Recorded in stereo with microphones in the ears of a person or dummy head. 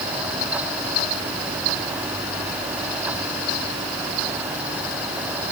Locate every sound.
Only background noise.